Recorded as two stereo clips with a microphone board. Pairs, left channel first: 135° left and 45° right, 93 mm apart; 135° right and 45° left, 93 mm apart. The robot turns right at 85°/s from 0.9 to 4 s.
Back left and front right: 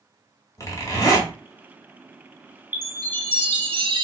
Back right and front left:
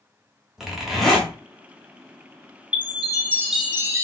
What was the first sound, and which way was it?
A zipper, 125° left.